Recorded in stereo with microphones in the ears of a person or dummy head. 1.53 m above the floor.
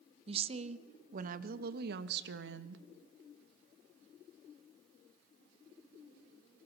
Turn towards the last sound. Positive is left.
turn(degrees=-75)  # may be behind; listen again after turning